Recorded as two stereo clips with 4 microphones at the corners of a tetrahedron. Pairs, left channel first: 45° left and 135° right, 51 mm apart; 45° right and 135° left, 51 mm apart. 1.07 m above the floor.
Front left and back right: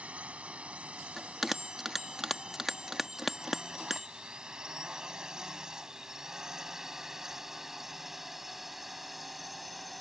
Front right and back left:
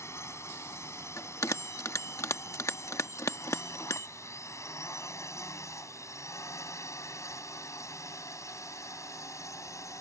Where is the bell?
50° right.